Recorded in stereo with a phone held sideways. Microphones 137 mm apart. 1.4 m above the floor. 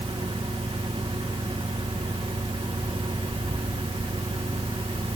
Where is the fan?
40° right (ahead or behind), 2.0 m.